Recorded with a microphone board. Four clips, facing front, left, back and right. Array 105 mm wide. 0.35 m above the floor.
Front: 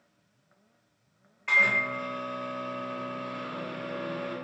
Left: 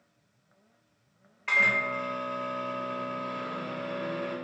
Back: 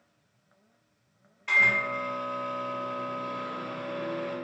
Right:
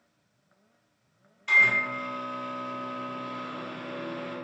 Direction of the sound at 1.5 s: 70° left.